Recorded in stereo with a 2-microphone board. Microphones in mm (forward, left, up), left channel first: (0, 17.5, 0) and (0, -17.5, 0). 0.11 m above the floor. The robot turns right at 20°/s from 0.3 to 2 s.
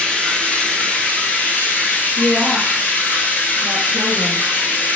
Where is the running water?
45° left, 1.7 m; by 5.0 s 80° left, 1.7 m.